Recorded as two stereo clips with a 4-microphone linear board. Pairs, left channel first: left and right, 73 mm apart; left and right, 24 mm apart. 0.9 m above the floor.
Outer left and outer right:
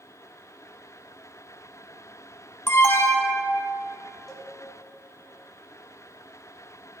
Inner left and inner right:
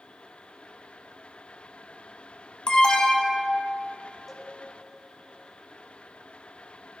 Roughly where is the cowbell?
Centre.